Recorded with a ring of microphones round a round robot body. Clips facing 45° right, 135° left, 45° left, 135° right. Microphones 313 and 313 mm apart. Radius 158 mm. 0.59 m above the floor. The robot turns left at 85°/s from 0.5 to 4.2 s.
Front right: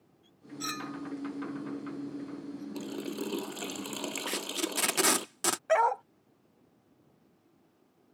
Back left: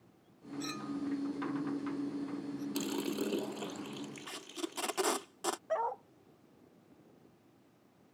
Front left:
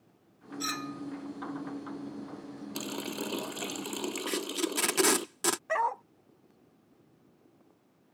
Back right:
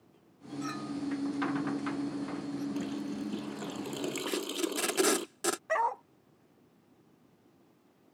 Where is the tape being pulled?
25° right.